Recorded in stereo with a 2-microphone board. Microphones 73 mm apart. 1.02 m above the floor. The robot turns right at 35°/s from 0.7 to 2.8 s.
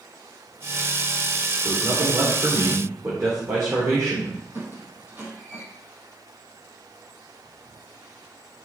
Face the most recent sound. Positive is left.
turn(degrees=-25)  # may be behind; listen again after turning